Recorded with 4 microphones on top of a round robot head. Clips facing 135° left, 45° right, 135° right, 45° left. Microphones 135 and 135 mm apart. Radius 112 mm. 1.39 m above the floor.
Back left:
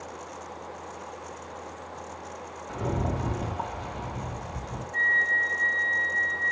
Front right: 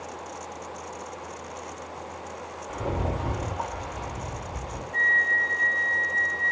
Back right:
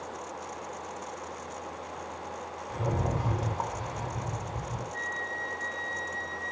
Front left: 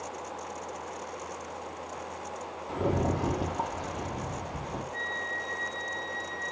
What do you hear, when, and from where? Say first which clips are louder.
2.7 s a rattle: even, front left 3 dB; 65° left, 2.5 m
4.9 s a flute: front right 2 dB, even; 25° left, 1.3 m